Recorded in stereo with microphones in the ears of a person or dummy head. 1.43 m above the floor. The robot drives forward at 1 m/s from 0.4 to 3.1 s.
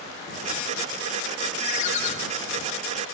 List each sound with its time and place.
1.6 s a ringtone: 45° left (ahead or behind), 3 m; by 2.1 s 55° left (ahead or behind), 2.5 m